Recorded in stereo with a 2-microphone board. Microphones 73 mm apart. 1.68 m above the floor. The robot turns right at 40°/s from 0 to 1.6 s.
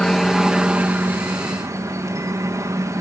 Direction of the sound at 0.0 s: 170° left.